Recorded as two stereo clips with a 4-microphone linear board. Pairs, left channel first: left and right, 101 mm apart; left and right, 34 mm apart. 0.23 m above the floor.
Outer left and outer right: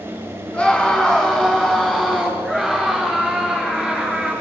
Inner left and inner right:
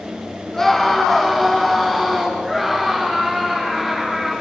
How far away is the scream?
About 2.5 m.